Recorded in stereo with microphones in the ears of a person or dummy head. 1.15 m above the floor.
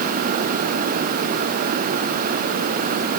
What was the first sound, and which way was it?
Only background noise.